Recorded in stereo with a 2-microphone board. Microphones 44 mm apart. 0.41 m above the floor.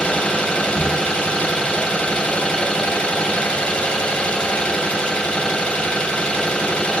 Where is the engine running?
25° left (ahead or behind), 2 m.